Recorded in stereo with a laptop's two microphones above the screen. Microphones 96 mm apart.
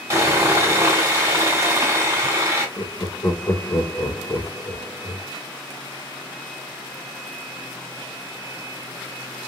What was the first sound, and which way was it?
Sawing, 30° right (ahead or behind).